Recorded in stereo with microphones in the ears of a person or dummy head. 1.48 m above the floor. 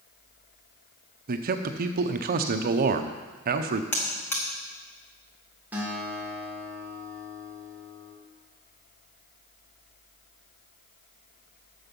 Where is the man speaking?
50° right (ahead or behind), 0.7 m.